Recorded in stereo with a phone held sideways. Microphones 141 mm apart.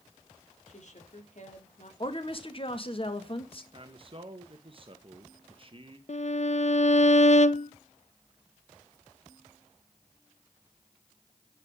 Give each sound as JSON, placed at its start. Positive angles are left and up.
{"t": 0.7, "sound": "a woman speaking", "side_deg": 60, "distance_m": 3.0}
{"t": 2.0, "sound": "a woman speaking", "side_deg": 40, "distance_m": 1.8}
{"t": 3.7, "sound": "a man speaking", "side_deg": -40, "distance_m": 1.2}
{"t": 6.1, "sound": "a violin", "side_deg": 50, "distance_m": 0.6}